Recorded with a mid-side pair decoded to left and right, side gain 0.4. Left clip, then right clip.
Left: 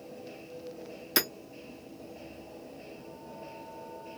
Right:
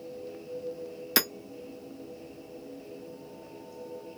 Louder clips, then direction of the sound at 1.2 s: Right 2 dB; 25° right.